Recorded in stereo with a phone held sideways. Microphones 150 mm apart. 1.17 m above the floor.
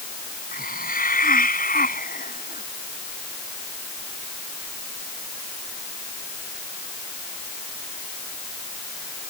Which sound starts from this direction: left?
A hiss, at 0.5 s.